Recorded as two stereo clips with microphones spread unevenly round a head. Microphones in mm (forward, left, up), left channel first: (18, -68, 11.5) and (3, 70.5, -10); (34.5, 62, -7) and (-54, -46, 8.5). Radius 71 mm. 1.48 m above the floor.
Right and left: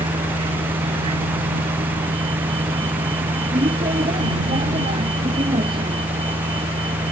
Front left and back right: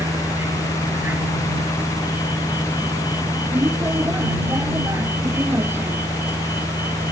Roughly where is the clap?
No clap in this recording.